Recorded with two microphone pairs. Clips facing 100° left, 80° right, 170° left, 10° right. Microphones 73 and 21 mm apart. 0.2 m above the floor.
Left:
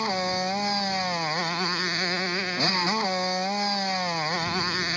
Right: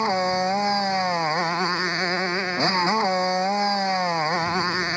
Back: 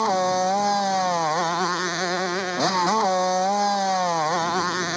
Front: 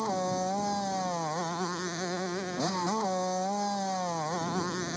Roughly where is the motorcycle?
Behind right.